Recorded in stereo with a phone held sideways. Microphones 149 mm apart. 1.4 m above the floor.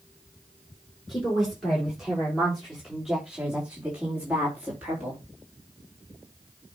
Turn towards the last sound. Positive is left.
turn(degrees=-10)  # may be behind; listen again after turning